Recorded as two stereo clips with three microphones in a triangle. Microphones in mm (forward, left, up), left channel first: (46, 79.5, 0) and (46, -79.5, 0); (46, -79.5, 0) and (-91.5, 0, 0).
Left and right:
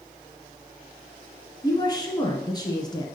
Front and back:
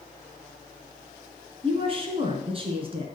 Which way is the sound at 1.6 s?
135° left.